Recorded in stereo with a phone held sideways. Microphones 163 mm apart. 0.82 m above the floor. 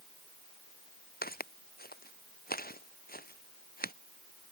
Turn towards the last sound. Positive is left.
turn(degrees=65)  # may be behind; listen again after turning